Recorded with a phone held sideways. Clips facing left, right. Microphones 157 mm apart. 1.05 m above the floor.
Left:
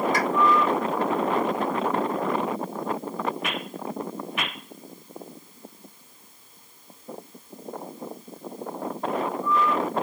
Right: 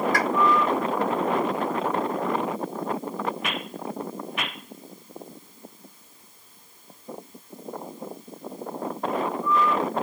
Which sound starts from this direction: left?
A pop, at 0.1 s.